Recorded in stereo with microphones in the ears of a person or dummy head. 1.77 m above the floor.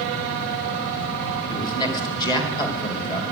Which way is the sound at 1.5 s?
25° left (ahead or behind).